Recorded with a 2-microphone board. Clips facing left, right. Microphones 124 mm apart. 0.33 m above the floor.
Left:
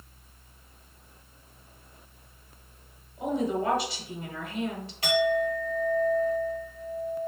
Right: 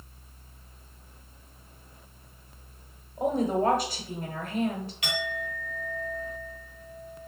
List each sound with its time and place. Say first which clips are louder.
3.2 s a woman speaking: right 3 dB; 50° right (ahead or behind), 1.4 m
5.0 s a clink: left 13 dB; 40° left (ahead or behind), 1.9 m